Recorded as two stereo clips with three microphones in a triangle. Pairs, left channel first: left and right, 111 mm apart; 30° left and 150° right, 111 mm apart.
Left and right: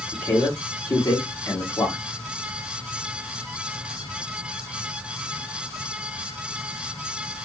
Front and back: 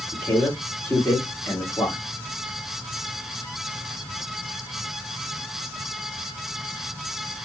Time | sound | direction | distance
0.1 | a man speaking | 85° left | 1.6 m